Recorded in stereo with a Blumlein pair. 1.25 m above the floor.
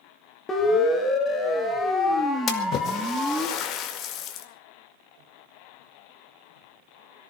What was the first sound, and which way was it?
A siren, 20° left.